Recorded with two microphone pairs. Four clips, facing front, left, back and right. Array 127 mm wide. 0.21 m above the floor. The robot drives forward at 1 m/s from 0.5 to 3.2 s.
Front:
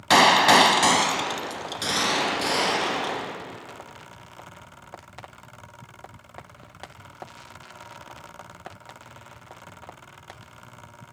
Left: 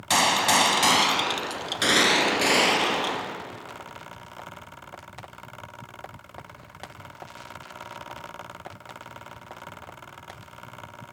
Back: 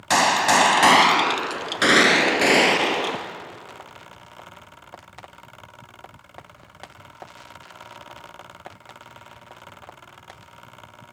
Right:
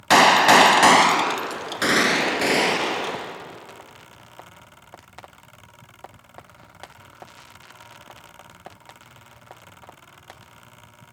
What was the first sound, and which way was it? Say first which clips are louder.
A gunshot: right 9 dB, front 2 dB; 70° right.